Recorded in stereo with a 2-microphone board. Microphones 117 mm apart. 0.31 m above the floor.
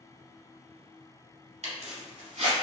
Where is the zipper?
60° right (ahead or behind), 1.5 m.